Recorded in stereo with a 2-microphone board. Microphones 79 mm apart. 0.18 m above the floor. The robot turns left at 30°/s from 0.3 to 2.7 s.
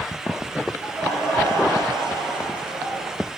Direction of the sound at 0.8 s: 55° right.